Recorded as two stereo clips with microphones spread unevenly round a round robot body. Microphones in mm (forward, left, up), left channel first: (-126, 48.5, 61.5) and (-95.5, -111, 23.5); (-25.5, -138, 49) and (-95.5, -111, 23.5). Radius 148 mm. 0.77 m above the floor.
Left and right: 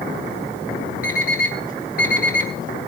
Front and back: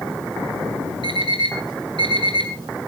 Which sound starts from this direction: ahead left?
An alarm clock, at 1.0 s.